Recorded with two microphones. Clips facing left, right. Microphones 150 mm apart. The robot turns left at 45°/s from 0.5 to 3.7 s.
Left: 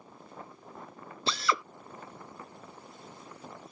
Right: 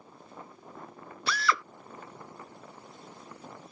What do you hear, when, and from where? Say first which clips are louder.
1.3 s a drill: right 1 dB; 25° left (ahead or behind); by 1.6 s 15° left (ahead or behind)